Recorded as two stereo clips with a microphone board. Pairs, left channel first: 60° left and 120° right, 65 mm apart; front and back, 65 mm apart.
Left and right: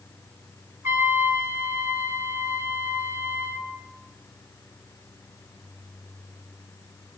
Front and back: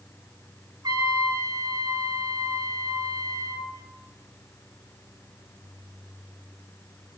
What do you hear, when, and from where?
0.8 s a trumpet: 170° right, 7.5 m